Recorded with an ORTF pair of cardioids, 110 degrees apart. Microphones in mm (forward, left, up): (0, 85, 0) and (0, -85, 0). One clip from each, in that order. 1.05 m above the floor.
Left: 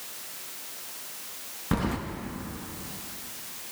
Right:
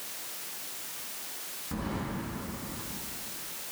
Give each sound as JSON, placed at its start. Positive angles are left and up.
{"t": 1.7, "sound": "keys jangling", "azimuth_deg": 65, "distance_m": 0.9}